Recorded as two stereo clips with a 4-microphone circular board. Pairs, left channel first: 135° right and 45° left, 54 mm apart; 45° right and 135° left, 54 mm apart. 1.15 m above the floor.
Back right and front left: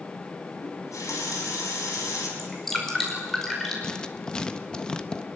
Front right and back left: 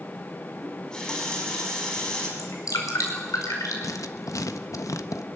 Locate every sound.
0.6 s a running tap: 120° right, 5.5 m
2.4 s dripping: 50° right, 5 m
3.8 s writing: 60° right, 1.1 m